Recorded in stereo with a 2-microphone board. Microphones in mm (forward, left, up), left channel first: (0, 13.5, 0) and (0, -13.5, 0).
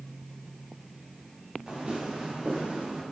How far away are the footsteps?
About 2.5 m.